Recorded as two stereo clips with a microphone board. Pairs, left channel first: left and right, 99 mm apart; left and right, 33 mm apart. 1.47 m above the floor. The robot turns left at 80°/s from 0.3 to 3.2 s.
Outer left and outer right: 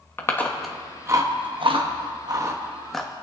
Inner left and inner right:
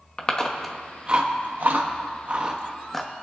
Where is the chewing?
25° left (ahead or behind), 1.1 m; by 3.2 s 20° left (ahead or behind), 1.1 m.